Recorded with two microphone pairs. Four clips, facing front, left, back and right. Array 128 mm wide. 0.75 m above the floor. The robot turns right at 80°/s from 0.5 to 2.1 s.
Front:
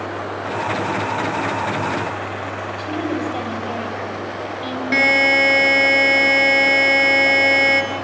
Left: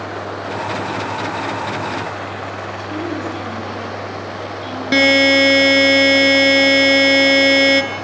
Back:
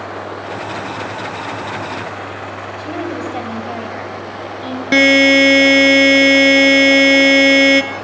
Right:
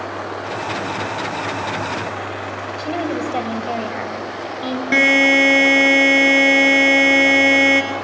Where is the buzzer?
165° left, 1.9 m.